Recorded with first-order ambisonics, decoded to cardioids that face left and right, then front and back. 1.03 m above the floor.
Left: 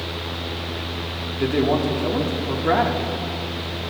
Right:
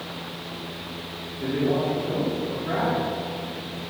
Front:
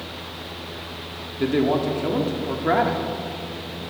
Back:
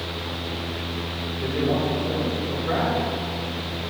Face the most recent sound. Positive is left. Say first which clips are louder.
# left 4 dB, front 4 dB
turn(degrees=40)